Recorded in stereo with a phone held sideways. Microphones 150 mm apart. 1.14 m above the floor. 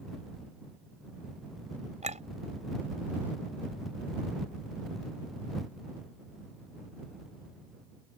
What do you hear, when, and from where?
2.0 s a clink: 50° right (ahead or behind)